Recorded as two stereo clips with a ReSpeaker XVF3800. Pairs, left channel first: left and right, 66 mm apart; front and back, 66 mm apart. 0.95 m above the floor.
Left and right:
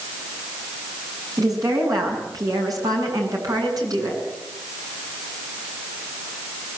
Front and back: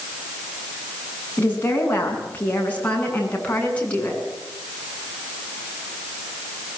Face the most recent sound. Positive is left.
turn(degrees=-75)